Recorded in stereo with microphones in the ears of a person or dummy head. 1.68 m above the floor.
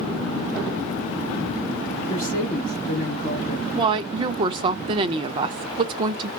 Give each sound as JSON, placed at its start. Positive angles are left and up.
{"t": 2.0, "sound": "a woman speaking", "side_deg": 40, "distance_m": 3.5}
{"t": 3.7, "sound": "a woman speaking", "side_deg": -30, "distance_m": 0.5}